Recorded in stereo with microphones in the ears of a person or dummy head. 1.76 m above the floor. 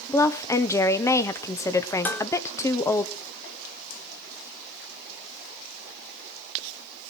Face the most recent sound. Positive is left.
turn(degrees=10)  # may be behind; listen again after turning